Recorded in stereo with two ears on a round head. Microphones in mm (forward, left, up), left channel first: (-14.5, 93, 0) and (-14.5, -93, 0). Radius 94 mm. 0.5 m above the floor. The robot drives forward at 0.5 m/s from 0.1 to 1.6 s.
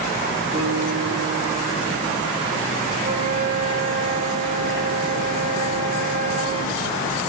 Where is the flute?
30° right (ahead or behind), 2 m.